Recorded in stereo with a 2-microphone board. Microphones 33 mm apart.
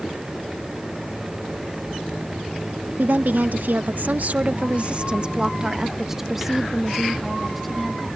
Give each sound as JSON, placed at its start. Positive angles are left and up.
{"t": 3.0, "sound": "a woman speaking", "side_deg": -65}